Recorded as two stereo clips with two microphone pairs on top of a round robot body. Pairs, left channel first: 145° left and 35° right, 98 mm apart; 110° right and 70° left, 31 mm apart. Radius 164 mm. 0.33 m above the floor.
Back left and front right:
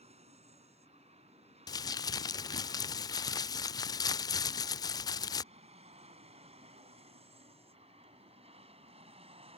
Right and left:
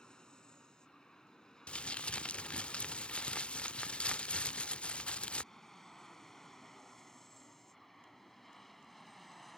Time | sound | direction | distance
0.0 | an aircraft | 40° right | ?
1.7 | crumpling | 170° right | ?